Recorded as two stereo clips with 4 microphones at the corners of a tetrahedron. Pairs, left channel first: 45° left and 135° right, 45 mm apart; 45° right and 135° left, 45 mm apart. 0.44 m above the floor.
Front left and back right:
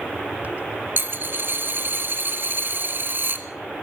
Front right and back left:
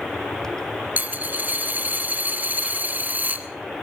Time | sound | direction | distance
1.0 | a dropped coin | 175° right | 1.4 m